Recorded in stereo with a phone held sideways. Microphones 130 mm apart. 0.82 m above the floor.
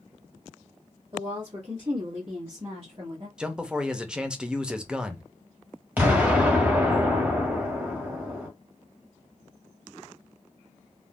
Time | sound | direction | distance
1.1 | a woman speaking | 35° right (ahead or behind) | 1.9 m
3.4 | a man speaking | 5° right (ahead or behind) | 0.6 m
6.0 | an explosion | 15° right (ahead or behind) | 1.5 m